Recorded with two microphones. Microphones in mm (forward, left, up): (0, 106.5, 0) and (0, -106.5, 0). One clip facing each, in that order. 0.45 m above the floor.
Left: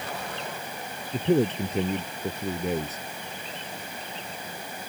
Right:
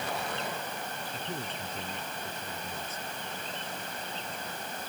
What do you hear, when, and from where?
1.1 s a man speaking: 70° left (ahead or behind)